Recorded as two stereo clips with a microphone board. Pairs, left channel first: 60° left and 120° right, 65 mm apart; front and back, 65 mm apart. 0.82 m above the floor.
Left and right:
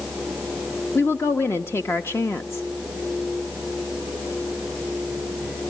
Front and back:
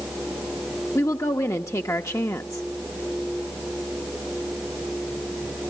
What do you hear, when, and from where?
0.9 s a woman speaking: 20° left, 1.0 m